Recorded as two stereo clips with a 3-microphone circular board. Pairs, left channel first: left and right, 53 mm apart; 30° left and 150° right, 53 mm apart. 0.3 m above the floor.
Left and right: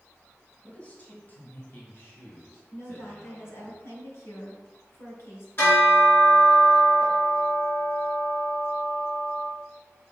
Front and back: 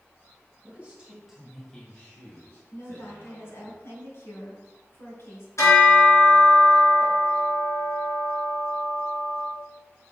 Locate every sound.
0.6 s a man speaking: 155° left, 2.5 m; by 3.7 s 40° left, 3.5 m
2.7 s a woman speaking: 60° left, 2.5 m
5.6 s a bell: 50° left, 3.5 m